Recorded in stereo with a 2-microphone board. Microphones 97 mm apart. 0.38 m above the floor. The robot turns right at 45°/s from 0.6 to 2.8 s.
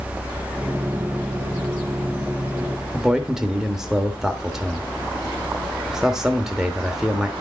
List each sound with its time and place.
2.9 s a man speaking: 5° right (ahead or behind), 0.8 m